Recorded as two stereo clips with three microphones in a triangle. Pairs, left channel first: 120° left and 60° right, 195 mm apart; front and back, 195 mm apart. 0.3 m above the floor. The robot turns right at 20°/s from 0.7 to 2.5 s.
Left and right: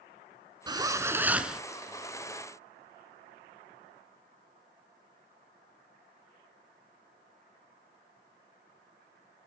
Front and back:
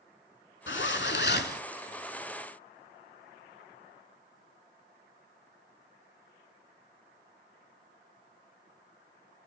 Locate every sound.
0.7 s a zipper: 10° left, 0.6 m; by 1.6 s 30° left, 0.6 m